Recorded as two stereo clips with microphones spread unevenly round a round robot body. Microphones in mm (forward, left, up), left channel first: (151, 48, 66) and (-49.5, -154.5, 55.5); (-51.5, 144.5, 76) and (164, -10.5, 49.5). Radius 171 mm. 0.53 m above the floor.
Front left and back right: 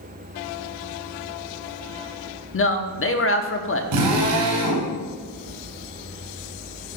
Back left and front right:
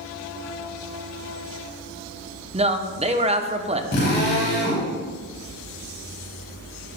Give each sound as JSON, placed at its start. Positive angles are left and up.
{"t": 2.5, "sound": "a man speaking", "azimuth_deg": 20, "distance_m": 1.2}
{"t": 3.9, "sound": "a drill", "azimuth_deg": -160, "distance_m": 4.5}